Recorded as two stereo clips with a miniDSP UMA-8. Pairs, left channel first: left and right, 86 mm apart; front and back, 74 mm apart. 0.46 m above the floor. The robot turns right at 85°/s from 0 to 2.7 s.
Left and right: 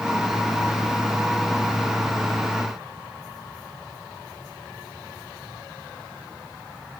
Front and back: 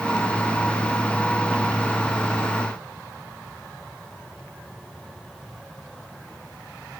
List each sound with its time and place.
Only background noise.